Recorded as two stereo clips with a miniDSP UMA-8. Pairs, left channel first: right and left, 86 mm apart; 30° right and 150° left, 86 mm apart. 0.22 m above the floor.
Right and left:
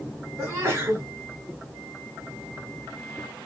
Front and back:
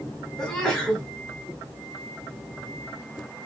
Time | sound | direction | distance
0.4 | a sneeze | 55° left | 1.6 m